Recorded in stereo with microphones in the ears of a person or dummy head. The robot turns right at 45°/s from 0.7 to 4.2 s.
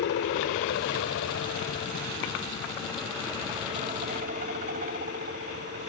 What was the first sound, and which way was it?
A helicopter, 65° left (ahead or behind).